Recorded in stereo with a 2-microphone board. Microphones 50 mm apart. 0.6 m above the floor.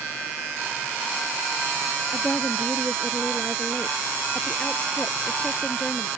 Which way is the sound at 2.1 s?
20° left (ahead or behind).